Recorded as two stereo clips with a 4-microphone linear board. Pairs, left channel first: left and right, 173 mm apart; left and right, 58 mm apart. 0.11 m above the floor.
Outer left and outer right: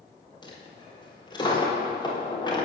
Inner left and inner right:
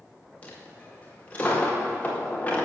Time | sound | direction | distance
0.4 | a dropped coin | 25° left (ahead or behind) | 4 m